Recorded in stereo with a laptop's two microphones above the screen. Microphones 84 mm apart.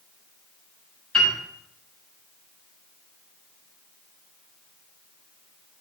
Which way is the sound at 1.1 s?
10° left (ahead or behind).